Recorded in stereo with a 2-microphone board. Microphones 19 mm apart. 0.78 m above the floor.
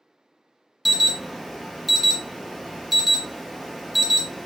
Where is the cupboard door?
No cupboard door in this recording.